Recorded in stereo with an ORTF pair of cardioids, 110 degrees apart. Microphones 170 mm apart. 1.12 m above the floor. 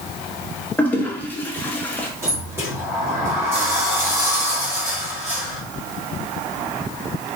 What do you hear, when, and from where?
0.8 s a toilet flushing: 10° left, 1.1 m
2.2 s a sliding door: 15° right, 2 m